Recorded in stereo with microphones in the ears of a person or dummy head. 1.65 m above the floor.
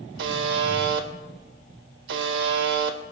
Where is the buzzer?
65° right (ahead or behind), 1.3 m.